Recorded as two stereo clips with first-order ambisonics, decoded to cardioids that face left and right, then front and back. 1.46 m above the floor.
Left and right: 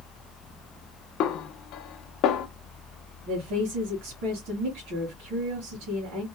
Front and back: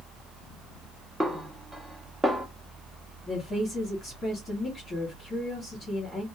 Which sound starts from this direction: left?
A snare drum, at 1.2 s.